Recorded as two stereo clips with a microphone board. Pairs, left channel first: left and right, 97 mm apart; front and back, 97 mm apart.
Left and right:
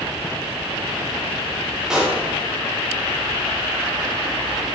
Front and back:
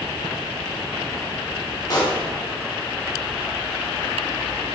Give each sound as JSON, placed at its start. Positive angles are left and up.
{"t": 1.9, "sound": "a pop", "azimuth_deg": -10, "distance_m": 0.7}